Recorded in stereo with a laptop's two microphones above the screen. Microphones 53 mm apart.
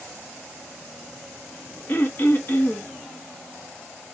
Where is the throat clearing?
40° left (ahead or behind), 0.6 m.